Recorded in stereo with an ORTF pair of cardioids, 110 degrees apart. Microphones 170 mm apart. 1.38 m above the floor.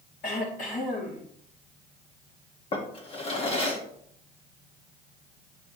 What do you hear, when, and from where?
0.2 s throat clearing: 55° left, 3 m
2.7 s a drawer: 35° left, 1.5 m